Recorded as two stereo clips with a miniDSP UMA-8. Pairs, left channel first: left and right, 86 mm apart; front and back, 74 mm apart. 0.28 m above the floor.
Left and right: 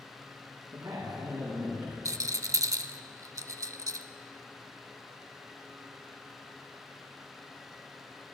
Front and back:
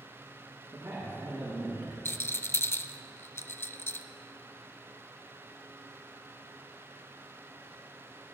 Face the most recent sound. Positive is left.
turn(degrees=-50)